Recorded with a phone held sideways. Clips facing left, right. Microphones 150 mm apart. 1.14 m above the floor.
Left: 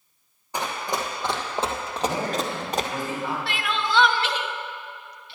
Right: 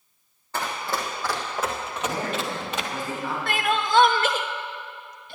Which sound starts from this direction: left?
A man speaking, at 2.0 s.